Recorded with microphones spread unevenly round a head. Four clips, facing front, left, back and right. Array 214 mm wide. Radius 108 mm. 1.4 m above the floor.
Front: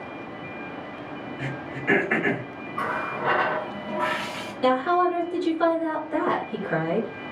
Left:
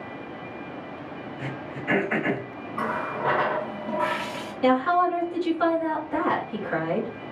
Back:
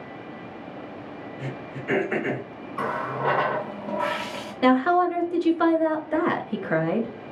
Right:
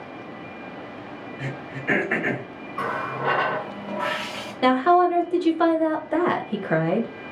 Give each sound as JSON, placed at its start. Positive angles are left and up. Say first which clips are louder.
{"t": 1.4, "sound": "throat clearing", "louder": "right 1 dB, front 2 dB", "azimuth_deg": -30, "distance_m": 1.4}
{"t": 2.8, "sound": "a running tap", "louder": "right 1 dB, back 1 dB", "azimuth_deg": 180, "distance_m": 0.5}
{"t": 4.6, "sound": "a woman speaking", "louder": "right 3 dB, back 2 dB", "azimuth_deg": -120, "distance_m": 0.7}